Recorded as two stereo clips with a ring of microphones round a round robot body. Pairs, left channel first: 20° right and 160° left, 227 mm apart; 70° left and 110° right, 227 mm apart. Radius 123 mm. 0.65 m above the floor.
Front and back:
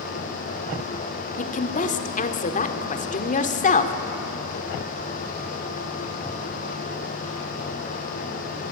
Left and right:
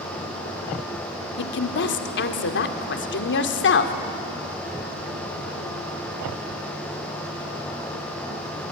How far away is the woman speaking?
About 1.8 m.